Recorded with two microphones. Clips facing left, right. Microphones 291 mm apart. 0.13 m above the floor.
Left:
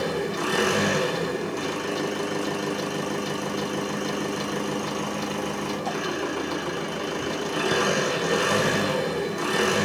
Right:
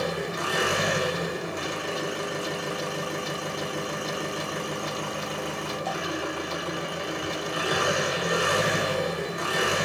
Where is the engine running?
55° left (ahead or behind), 1.2 m.